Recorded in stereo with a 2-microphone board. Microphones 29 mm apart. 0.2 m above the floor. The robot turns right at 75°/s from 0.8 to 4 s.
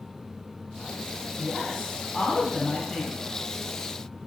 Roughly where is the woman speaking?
Ahead.